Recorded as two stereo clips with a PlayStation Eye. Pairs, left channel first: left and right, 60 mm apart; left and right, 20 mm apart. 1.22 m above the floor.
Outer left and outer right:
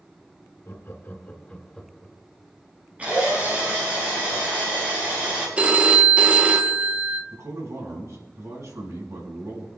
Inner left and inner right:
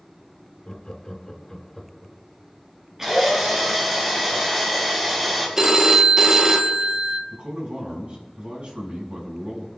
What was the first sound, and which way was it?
Laughter, 50° left (ahead or behind).